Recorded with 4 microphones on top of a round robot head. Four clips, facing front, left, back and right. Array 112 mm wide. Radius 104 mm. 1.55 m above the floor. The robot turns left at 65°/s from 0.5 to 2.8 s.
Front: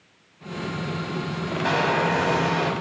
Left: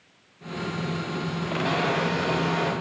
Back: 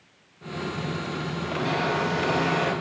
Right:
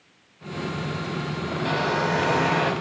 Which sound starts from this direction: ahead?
A hair dryer, at 1.6 s.